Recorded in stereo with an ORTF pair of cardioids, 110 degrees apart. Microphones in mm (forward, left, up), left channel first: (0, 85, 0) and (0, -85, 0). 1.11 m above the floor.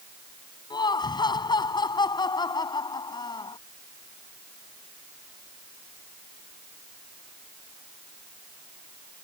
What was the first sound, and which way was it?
Laughter, 25° left.